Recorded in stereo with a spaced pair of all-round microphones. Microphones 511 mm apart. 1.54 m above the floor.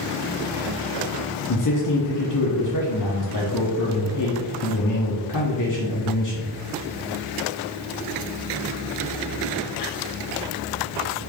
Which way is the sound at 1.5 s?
40° left (ahead or behind).